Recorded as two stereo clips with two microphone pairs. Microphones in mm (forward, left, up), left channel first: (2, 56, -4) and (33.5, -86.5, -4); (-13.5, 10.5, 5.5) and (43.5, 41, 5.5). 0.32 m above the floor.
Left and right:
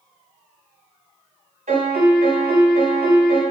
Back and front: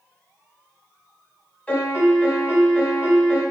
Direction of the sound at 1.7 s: 85° right.